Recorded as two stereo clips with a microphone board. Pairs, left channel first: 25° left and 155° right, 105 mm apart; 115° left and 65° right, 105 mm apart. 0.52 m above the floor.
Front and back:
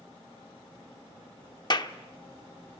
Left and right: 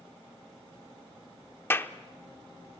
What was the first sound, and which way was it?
A clap, 50° left.